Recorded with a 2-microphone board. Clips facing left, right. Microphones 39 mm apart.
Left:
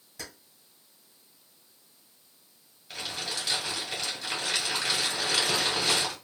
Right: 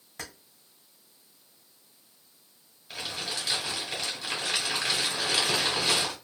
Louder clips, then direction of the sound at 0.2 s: Right 2 dB; 50° right (ahead or behind).